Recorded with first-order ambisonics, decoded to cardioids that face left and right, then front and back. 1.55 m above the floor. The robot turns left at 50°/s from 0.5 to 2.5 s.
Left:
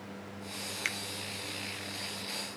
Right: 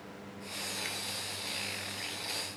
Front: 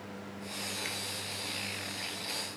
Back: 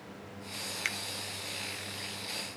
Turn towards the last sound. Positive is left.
turn(degrees=50)